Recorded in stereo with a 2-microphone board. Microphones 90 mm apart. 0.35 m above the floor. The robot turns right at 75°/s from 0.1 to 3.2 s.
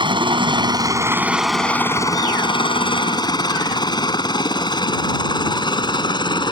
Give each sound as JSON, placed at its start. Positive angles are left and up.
{"t": 0.0, "sound": "a helicopter", "side_deg": -60}